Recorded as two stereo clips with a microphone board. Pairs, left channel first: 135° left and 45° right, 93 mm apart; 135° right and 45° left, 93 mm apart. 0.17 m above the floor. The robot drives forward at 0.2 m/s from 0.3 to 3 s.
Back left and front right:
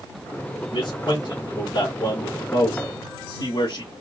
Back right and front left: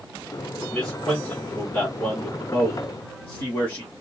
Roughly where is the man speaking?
Behind left.